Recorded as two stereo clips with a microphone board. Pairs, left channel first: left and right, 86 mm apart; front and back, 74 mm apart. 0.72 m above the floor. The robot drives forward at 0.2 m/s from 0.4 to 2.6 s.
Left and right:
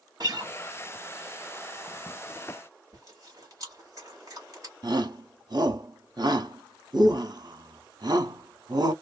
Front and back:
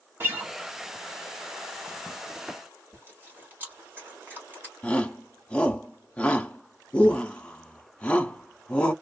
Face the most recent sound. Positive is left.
turn(degrees=-70)